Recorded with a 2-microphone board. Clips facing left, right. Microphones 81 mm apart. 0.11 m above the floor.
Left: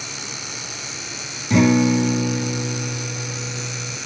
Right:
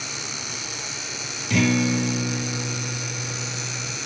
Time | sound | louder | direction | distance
1.5 | a guitar | left 6 dB | 25° left (ahead or behind) | 0.9 m